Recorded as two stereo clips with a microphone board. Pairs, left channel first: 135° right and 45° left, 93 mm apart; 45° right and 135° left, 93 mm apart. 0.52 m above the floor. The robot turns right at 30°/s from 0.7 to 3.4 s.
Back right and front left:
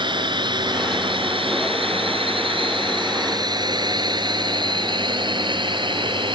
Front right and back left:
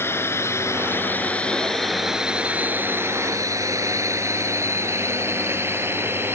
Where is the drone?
20° left; by 6.4 s 70° left.